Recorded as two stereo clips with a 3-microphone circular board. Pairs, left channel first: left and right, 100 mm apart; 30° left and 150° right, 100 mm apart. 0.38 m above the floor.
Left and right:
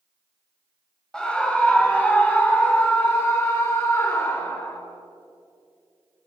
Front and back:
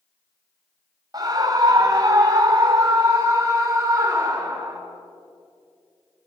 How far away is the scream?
About 2.5 m.